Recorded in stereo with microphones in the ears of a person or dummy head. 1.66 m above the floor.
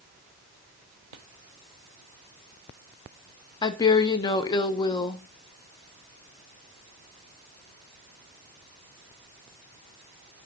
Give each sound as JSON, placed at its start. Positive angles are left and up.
{"t": 3.6, "sound": "a woman speaking", "side_deg": 30, "distance_m": 1.0}